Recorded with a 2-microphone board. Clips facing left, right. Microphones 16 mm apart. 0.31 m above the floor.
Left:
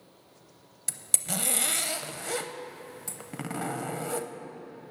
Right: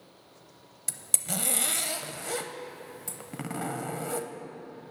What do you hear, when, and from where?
0.9 s a zipper: 10° left (ahead or behind), 0.5 m